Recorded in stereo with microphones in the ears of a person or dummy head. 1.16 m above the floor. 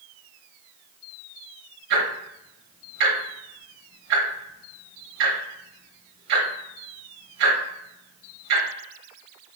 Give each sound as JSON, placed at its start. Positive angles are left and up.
{"t": 1.9, "sound": "ticking", "side_deg": -70, "distance_m": 2.5}